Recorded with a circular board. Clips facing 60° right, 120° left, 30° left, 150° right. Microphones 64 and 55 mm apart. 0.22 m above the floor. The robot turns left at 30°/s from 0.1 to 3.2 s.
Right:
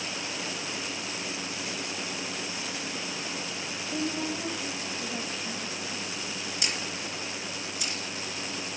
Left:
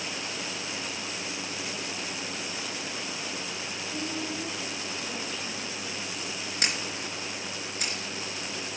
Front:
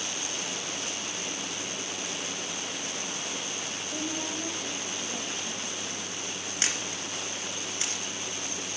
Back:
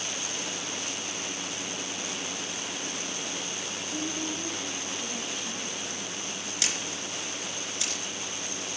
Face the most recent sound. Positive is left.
turn(degrees=85)